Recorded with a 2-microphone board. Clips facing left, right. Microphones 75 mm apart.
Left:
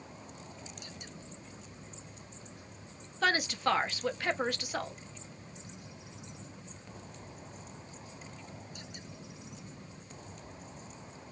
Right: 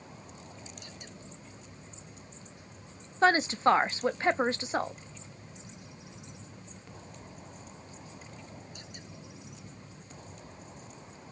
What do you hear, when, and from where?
3.2 s a woman speaking: 30° right (ahead or behind), 0.5 m